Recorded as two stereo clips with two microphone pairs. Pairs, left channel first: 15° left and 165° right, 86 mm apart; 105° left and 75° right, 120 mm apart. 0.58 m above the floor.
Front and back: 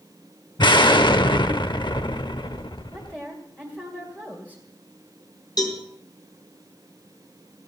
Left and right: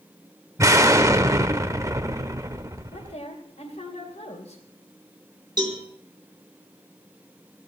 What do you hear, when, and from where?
0.6 s an explosion: 10° right, 0.7 m
2.9 s a woman speaking: 90° left, 2.5 m
5.6 s a cowbell: 25° right, 3.5 m